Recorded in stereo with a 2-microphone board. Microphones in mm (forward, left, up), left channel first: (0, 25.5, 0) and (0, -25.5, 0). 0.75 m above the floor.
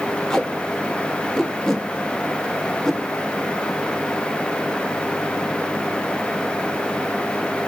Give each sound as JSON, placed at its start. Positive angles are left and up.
{"t": 0.3, "sound": "tape being pulled", "side_deg": 10, "distance_m": 0.9}